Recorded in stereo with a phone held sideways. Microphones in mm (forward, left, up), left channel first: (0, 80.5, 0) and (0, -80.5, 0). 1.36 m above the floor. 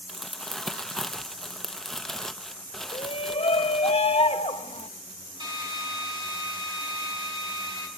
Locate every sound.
0.1 s crumpling: centre (ahead or behind), 0.7 m
2.9 s a shout: 40° left (ahead or behind), 1.1 m
5.4 s a drill: 30° right (ahead or behind), 4 m